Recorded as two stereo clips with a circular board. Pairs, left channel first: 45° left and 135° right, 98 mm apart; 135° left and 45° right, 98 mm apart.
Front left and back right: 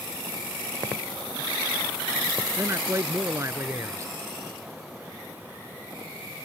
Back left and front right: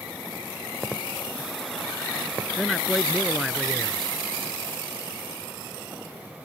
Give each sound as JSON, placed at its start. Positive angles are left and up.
{"t": 2.6, "sound": "a man speaking", "azimuth_deg": -135}